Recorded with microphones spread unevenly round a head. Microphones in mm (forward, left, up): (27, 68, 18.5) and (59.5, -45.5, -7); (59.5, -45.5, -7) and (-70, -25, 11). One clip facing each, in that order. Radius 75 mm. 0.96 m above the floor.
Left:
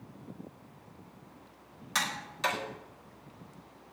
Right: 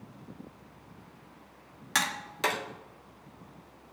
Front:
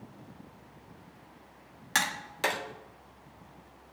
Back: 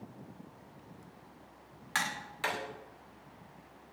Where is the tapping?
50° right, 2.5 m.